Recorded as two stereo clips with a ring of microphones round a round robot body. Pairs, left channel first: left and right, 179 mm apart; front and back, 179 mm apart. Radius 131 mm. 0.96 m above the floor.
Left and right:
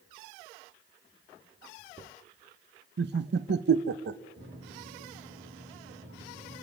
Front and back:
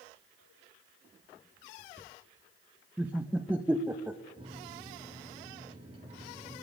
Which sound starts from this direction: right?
Laughter, at 3.0 s.